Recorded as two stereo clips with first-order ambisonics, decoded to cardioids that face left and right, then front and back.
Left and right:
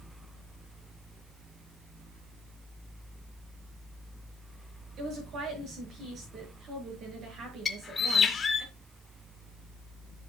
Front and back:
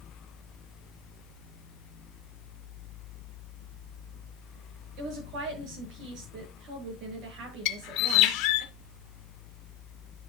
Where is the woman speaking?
145° right, 7.5 m.